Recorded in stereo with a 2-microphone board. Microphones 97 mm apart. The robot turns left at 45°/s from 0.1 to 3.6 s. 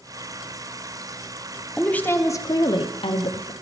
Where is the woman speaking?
175° left, 0.8 m; by 3.5 s 95° left, 0.8 m.